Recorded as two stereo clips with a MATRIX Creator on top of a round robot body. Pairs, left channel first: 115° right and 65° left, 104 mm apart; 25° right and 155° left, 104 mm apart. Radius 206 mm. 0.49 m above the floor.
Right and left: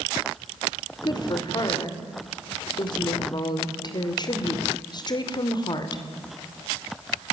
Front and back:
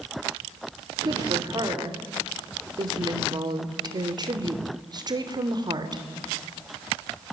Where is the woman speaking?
155° right, 2.5 m.